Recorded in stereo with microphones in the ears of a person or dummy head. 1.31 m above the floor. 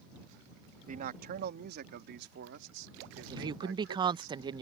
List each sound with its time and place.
0.9 s a man speaking: 40° right (ahead or behind); by 4.3 s 75° right (ahead or behind)
3.3 s a woman speaking: 25° right (ahead or behind)